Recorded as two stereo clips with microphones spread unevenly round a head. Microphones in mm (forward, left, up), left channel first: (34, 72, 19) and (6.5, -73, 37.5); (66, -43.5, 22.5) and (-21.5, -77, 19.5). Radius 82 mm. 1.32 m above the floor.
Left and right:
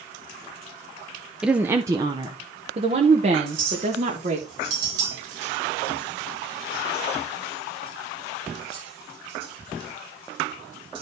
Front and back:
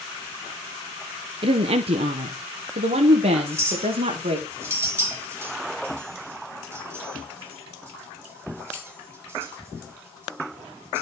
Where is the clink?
95° right, 4.5 m.